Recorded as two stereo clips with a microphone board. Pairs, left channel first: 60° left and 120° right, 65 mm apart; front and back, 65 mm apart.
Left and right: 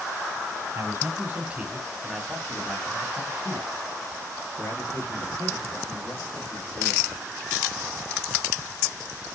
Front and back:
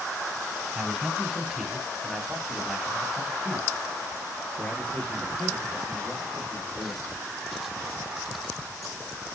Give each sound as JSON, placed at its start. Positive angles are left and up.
{"t": 0.8, "sound": "a man speaking", "azimuth_deg": -110, "distance_m": 1.4}